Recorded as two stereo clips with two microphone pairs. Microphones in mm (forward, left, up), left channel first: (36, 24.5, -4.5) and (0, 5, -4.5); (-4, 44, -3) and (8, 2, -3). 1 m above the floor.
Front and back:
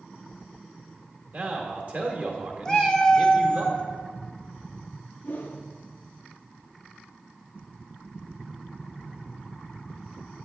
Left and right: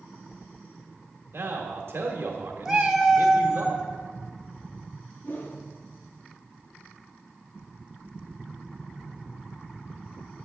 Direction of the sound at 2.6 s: 10° right.